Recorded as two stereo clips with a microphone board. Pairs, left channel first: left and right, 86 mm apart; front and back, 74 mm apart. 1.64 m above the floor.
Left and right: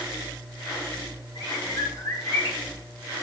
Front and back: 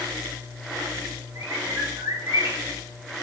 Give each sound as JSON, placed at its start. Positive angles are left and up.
{"t": 1.4, "sound": "a bird", "azimuth_deg": 130, "distance_m": 4.0}